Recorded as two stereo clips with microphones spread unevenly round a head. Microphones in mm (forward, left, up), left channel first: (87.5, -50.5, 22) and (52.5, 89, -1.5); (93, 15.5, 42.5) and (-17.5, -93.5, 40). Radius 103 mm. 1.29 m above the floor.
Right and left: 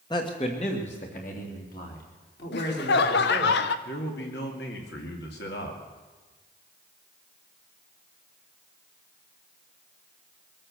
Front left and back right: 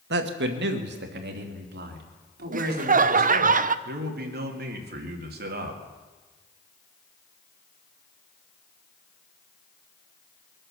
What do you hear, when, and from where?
0.1 s a man speaking: 150° right, 1.4 m; by 3.5 s 120° right, 4 m
2.5 s laughter: 100° right, 0.6 m
3.9 s a man speaking: 120° right, 2 m